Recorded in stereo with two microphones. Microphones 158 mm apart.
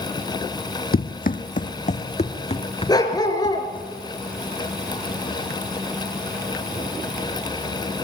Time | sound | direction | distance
0.9 | running footsteps | 60° left (ahead or behind) | 0.8 m
2.9 | a dog barking | 25° left (ahead or behind) | 2.5 m